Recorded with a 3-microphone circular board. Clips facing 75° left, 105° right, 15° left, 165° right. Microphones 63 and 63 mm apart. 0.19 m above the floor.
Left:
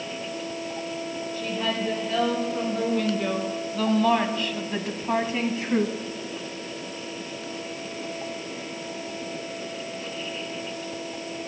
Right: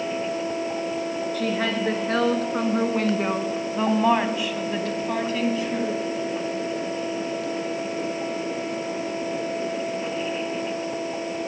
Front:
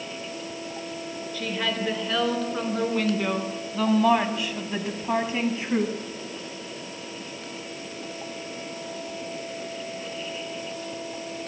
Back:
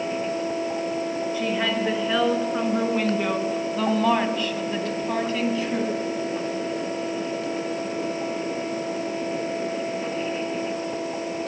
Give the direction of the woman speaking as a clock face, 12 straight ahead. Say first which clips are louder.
Right 2 dB, back 2 dB; 3 o'clock.